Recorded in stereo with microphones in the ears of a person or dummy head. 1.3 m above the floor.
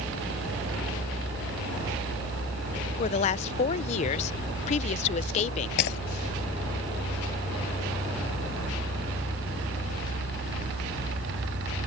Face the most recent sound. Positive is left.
turn(degrees=60)  # may be behind; listen again after turning